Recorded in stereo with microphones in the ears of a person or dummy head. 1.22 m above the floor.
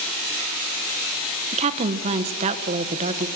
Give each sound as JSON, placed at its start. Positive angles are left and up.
{"t": 1.5, "sound": "a woman speaking", "side_deg": -35, "distance_m": 0.6}